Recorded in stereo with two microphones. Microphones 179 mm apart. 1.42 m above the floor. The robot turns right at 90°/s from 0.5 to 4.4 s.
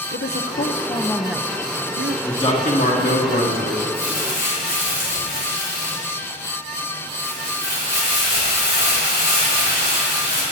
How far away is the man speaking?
About 3 m.